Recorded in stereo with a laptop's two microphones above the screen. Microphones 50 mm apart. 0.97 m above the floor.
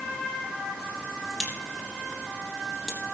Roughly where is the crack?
Centre.